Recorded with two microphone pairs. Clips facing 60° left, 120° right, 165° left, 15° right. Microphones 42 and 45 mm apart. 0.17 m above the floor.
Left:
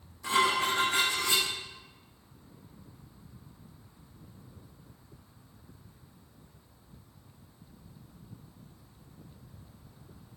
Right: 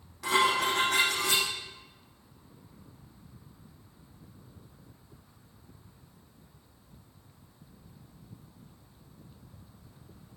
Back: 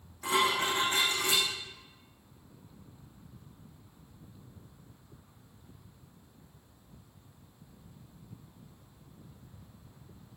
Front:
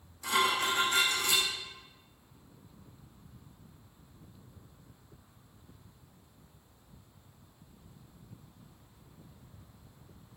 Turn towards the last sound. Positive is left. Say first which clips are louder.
# right 1 dB, back 1 dB
turn(degrees=-140)